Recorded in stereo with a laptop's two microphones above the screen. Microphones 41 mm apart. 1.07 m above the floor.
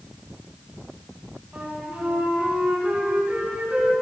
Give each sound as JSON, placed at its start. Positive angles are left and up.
{"t": 1.5, "sound": "a flute", "side_deg": -45, "distance_m": 1.9}